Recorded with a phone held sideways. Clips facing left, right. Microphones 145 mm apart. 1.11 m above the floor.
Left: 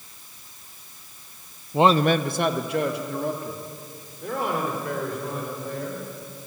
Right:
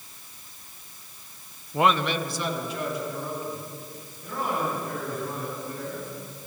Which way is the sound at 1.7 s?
15° left (ahead or behind).